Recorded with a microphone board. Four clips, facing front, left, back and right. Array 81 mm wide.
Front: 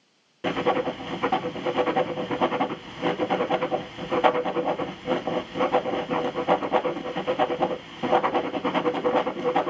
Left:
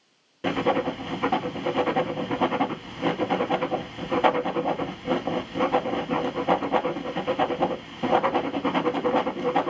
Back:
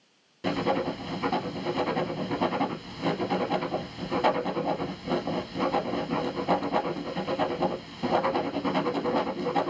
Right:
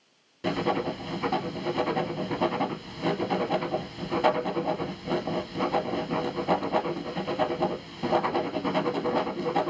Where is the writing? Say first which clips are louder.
Left 3 dB, front 3 dB; 40° left, 0.6 m.